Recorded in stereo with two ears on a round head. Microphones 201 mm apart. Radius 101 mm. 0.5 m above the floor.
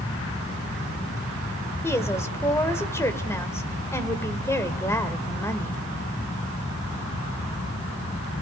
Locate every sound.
1.8 s a woman speaking: 10° left (ahead or behind), 1.6 m